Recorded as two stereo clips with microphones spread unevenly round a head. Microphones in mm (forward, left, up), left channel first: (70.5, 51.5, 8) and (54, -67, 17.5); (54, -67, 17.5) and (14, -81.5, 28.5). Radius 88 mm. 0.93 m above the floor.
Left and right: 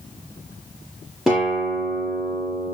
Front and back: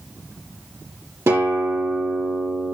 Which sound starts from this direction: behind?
A guitar, at 1.3 s.